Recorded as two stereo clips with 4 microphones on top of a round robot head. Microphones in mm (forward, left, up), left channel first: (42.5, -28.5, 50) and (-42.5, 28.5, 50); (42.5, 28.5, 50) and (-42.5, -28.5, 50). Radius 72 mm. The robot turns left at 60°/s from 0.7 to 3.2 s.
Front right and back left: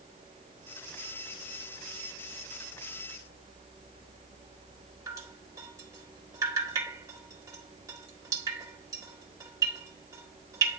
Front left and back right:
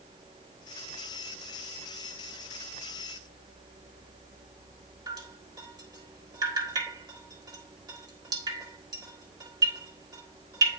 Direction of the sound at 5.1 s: 175° right.